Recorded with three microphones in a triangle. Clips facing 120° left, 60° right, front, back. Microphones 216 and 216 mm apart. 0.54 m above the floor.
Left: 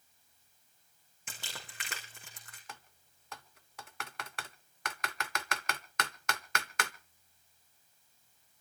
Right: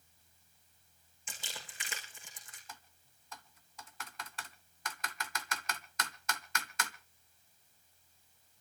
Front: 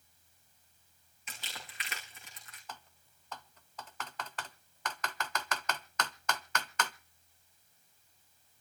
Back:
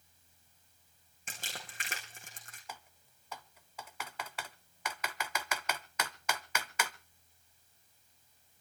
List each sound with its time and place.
1.3 s crumpling: 140° left, 5 m
2.7 s typing on a keyboard: 100° left, 0.8 m